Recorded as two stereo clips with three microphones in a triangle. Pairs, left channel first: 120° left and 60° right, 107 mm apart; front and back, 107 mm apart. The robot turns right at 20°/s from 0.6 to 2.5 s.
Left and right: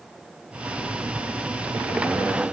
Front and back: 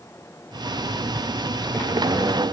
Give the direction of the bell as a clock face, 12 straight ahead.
I don't hear a bell.